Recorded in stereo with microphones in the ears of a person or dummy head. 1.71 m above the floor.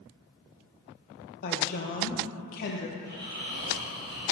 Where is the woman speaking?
50° left (ahead or behind), 0.8 m.